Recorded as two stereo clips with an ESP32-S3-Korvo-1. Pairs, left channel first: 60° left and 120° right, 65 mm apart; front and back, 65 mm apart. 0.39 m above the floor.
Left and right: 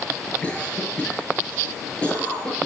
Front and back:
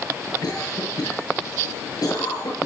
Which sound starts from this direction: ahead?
A cough, at 0.4 s.